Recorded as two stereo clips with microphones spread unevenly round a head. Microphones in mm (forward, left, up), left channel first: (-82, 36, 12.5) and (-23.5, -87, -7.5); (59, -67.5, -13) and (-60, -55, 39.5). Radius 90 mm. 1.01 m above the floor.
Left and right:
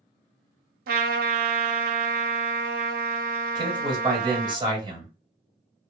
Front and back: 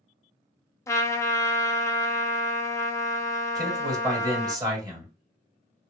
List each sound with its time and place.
0.9 s a trumpet: 80° right, 0.8 m
3.5 s a man speaking: 120° right, 2 m